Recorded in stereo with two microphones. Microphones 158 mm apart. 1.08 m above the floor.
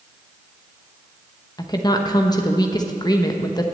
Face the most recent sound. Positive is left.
turn(degrees=25)  # may be behind; listen again after turning